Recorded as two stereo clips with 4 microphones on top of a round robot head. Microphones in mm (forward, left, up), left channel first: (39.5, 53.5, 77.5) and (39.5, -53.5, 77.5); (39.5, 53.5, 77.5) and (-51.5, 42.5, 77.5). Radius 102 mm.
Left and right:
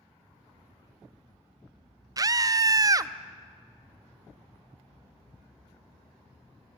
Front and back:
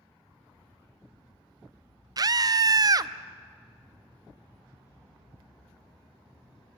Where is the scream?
140° right, 0.8 m.